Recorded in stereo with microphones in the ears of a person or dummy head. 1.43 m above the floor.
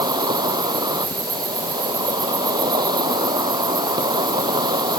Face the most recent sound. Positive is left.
turn(degrees=-20)  # may be behind; listen again after turning